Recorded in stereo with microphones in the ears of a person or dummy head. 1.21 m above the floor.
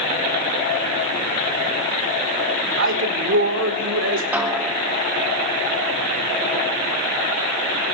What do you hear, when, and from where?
2.8 s a man speaking: 60° right (ahead or behind), 1.6 m
4.3 s a snare drum: 10° right (ahead or behind), 0.6 m